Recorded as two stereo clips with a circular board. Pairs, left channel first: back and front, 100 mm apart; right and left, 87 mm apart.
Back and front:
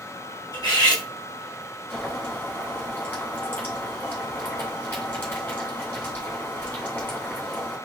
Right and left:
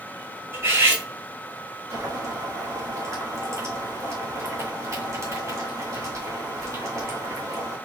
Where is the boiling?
120° left, 2 m.